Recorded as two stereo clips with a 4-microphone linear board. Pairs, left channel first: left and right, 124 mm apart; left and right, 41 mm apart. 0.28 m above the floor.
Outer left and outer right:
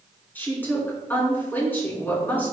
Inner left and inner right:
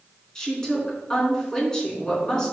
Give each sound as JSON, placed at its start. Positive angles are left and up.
{"t": 0.3, "sound": "a woman speaking", "side_deg": 15, "distance_m": 3.5}